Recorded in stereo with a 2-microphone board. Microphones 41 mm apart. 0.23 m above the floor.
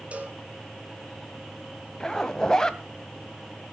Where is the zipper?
15° left (ahead or behind), 1.2 m.